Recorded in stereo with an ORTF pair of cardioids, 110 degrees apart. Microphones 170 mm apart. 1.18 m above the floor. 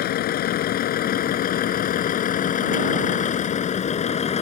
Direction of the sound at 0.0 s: 70° left.